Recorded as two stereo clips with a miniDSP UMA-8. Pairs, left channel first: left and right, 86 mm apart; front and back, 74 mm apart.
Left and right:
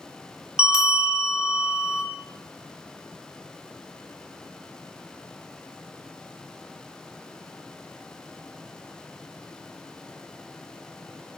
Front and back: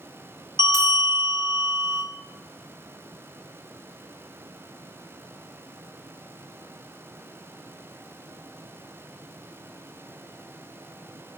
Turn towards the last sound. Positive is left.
turn(degrees=-165)